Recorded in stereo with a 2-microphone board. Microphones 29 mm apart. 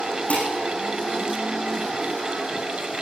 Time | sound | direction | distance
0.3 | dishes clattering | 55° left (ahead or behind) | 7.5 m